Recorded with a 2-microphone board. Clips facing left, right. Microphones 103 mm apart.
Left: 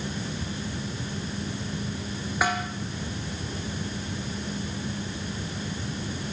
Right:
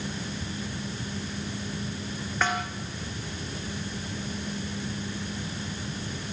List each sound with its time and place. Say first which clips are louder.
2.4 s a snare drum: left 1 dB; 10° left (ahead or behind), 4.5 m